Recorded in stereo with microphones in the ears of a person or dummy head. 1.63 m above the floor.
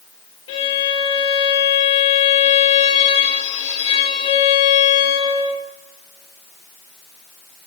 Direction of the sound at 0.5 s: 30° left (ahead or behind).